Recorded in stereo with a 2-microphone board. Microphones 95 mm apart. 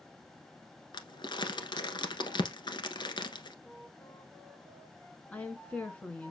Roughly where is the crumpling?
Left.